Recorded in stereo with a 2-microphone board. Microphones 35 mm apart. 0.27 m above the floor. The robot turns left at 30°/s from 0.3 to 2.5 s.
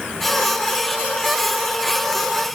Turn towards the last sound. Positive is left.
No sound to turn to.